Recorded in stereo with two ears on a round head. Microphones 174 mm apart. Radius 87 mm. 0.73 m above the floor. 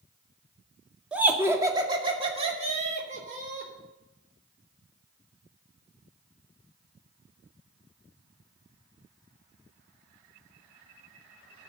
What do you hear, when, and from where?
1.1 s laughter: 5° right (ahead or behind), 1.7 m; by 3.7 s 45° right (ahead or behind), 3 m